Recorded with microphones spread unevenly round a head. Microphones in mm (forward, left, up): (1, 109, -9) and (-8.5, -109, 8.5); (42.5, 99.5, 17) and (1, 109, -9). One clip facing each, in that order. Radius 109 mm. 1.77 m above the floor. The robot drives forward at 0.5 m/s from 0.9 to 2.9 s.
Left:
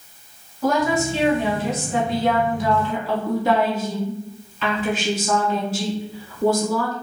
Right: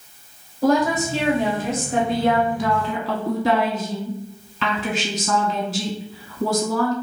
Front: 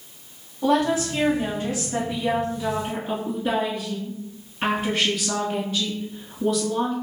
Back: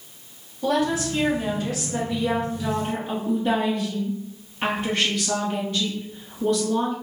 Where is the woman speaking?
35° right, 1.4 m; by 6.9 s 85° right, 0.9 m.